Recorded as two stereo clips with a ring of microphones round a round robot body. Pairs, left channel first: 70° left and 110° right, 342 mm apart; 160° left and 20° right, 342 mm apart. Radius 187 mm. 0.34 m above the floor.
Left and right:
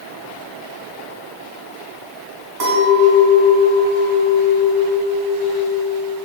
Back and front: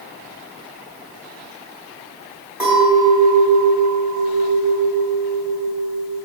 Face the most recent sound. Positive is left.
turn(degrees=-110)